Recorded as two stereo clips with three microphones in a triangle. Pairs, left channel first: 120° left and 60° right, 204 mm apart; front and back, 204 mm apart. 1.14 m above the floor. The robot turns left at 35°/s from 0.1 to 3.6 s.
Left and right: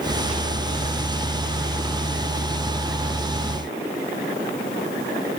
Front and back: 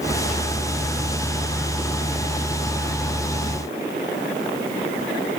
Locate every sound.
Only background noise.